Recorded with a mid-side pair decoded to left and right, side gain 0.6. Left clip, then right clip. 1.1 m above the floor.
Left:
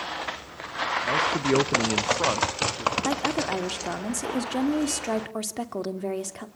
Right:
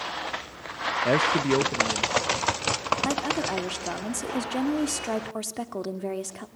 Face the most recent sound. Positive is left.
turn(degrees=5)